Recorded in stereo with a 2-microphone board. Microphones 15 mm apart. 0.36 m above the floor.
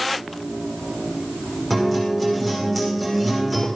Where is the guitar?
25° left (ahead or behind), 6 m.